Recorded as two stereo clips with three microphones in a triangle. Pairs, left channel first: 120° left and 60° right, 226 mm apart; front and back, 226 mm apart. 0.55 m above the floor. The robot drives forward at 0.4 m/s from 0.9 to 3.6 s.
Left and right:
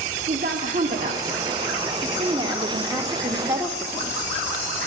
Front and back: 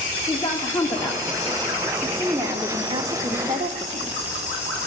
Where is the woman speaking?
65° right, 1.2 m; by 4.3 s 140° right, 1.3 m.